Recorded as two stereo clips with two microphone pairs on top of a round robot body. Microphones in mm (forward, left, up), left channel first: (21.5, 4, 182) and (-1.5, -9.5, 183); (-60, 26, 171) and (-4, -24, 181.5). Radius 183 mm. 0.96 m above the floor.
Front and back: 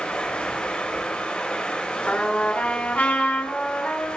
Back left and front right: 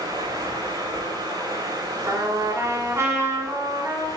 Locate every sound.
0.0 s running water: 10° right, 4.5 m
2.1 s a trumpet: 10° left, 3 m